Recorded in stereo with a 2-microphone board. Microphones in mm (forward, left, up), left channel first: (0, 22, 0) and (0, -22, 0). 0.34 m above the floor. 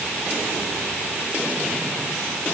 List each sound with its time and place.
Only background noise.